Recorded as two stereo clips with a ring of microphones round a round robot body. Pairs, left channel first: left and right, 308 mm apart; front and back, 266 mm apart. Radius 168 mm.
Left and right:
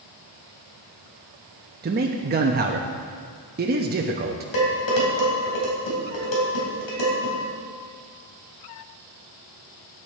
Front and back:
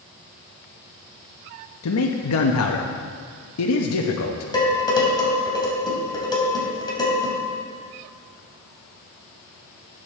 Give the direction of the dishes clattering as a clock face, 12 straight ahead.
10 o'clock.